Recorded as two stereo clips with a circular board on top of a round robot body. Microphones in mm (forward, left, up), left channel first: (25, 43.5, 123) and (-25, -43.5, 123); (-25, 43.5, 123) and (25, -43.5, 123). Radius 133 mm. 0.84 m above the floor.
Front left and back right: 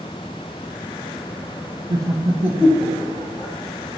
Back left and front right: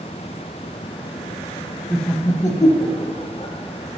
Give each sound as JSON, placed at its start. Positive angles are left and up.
{"t": 1.9, "sound": "laughter", "azimuth_deg": -145, "distance_m": 1.0}